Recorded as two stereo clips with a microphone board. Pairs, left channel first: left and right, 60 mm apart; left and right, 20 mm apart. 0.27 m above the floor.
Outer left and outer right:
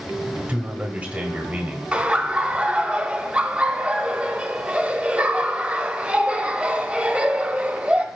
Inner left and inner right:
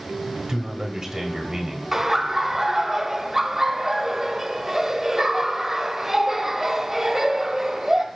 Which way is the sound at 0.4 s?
25° right (ahead or behind).